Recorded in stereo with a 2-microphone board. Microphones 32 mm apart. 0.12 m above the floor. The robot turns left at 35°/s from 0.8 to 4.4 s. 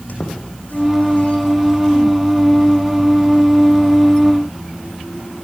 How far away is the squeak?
About 5.5 m.